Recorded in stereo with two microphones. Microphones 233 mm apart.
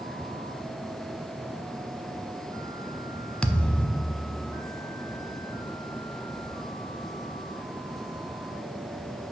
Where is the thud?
5° left (ahead or behind), 0.6 m.